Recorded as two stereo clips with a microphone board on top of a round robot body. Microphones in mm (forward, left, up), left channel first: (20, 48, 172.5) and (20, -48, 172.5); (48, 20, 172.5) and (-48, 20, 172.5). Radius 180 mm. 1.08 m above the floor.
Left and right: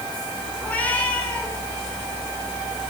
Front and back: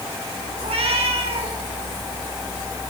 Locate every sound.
0.6 s a cat meowing: 165° left, 6 m